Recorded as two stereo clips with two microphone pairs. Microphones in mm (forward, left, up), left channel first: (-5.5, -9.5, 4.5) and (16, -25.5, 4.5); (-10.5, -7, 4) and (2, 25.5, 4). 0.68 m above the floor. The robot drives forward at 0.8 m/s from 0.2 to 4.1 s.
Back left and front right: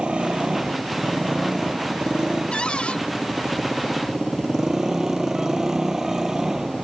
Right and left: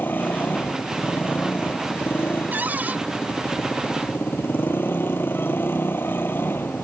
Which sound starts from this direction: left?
A cupboard door, at 2.5 s.